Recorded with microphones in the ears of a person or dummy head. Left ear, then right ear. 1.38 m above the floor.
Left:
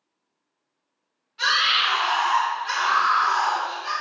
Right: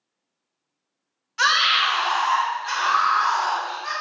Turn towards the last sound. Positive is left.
turn(degrees=-30)  # may be behind; listen again after turning